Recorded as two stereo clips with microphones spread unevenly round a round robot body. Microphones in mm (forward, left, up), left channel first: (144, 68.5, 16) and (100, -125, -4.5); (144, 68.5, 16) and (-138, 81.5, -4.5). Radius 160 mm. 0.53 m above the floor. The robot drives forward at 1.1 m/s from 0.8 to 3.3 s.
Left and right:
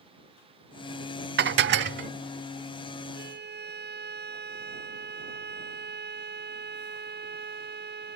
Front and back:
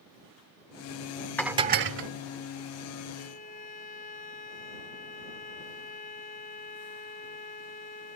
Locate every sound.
1.4 s dishes clattering: 90° right; by 2.1 s 145° right
3.1 s a violin: 70° right